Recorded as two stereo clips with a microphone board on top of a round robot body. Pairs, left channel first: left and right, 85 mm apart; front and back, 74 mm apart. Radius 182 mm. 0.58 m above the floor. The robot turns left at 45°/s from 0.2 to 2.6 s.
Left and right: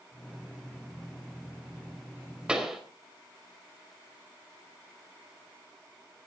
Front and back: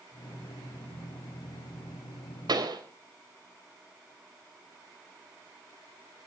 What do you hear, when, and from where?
2.5 s a pop: 170° right, 4 m; by 2.8 s 175° right, 4 m